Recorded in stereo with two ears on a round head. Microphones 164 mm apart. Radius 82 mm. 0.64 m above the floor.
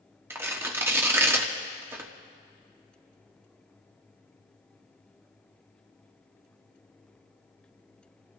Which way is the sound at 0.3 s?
15° right (ahead or behind).